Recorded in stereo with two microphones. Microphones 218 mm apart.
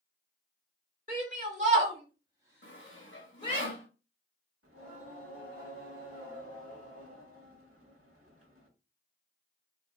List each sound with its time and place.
1.1 s a shout: 40° right (ahead or behind), 1.6 m; by 3.6 s 25° left (ahead or behind), 1.1 m
2.6 s sawing: 60° left (ahead or behind), 0.8 m
4.6 s singing: 75° right (ahead or behind), 1.2 m